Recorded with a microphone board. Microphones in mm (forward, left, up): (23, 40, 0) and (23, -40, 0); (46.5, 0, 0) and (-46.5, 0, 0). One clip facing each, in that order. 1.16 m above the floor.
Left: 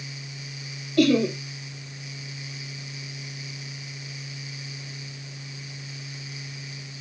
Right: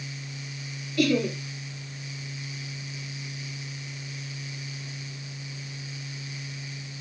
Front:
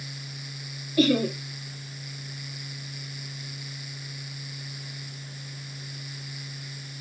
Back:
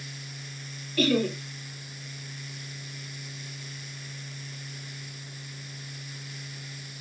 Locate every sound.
1.0 s laughter: 70° left, 1.1 m